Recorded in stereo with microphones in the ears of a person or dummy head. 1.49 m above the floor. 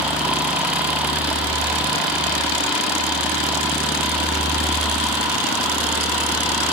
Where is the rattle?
I don't hear a rattle.